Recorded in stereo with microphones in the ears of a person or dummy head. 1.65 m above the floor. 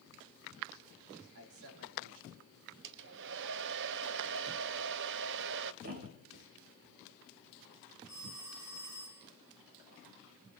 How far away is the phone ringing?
About 9 m.